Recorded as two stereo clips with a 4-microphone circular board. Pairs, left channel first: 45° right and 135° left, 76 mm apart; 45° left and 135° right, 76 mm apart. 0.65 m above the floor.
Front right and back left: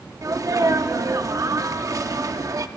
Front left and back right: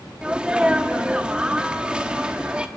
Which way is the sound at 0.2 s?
155° left.